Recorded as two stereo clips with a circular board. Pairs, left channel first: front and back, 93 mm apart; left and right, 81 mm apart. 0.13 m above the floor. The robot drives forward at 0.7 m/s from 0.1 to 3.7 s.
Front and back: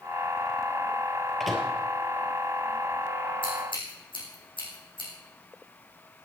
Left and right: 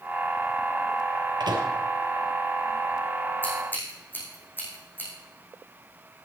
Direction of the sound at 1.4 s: 85° right.